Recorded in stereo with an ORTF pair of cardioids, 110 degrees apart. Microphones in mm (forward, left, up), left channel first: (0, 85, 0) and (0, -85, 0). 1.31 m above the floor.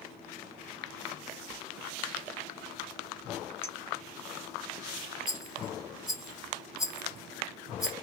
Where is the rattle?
5° right, 1.5 m.